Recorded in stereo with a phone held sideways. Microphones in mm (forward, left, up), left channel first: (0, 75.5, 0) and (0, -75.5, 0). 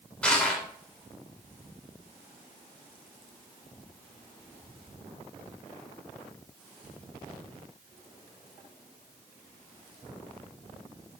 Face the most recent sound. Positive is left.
turn(degrees=5)  # may be behind; listen again after turning